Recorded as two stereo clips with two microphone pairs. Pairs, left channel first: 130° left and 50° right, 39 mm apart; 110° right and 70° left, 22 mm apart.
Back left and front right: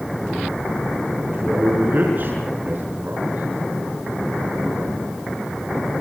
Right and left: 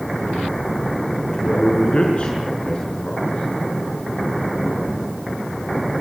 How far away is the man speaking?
About 6 m.